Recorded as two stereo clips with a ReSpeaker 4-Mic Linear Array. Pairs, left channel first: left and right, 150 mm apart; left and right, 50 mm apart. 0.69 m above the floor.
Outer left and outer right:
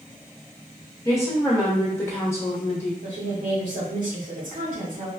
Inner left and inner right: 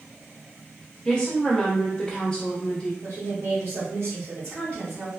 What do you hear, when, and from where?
1.1 s a woman speaking: 20° left (ahead or behind), 1.0 m
3.0 s a woman speaking: 65° right (ahead or behind), 1.2 m